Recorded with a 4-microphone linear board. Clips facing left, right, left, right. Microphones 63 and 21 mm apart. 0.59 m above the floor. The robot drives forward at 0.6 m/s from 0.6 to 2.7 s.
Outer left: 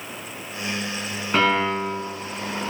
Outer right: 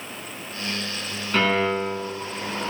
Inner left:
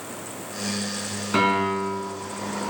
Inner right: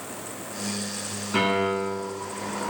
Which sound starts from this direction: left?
A piano, at 1.3 s.